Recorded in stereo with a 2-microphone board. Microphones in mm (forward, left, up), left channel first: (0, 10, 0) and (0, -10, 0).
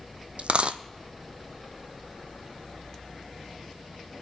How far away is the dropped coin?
About 0.5 m.